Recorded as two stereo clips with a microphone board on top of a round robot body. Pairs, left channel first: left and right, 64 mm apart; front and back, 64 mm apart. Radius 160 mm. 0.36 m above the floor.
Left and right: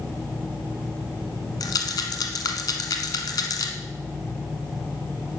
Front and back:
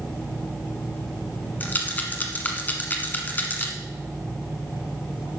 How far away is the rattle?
About 1.2 m.